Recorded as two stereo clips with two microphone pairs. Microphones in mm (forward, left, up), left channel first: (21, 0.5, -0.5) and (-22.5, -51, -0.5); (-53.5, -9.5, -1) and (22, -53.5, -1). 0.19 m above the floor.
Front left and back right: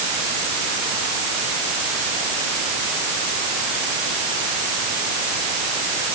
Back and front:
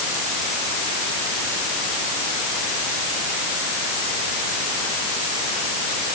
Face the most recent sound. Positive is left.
No sound to turn to.